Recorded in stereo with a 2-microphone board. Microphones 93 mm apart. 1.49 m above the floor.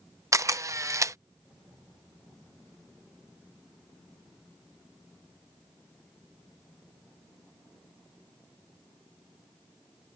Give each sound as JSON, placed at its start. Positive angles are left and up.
{"t": 0.3, "sound": "a camera shutter", "side_deg": -35}